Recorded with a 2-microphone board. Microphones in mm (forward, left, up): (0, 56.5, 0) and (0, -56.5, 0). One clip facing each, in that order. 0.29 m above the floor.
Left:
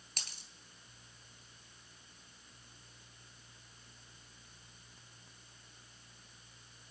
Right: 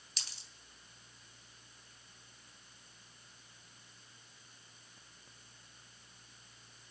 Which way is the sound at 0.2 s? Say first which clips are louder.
Left 3 dB; 55° left (ahead or behind).